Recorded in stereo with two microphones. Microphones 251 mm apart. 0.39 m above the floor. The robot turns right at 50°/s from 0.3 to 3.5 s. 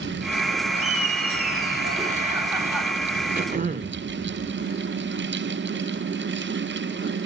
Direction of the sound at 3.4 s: 35° right (ahead or behind).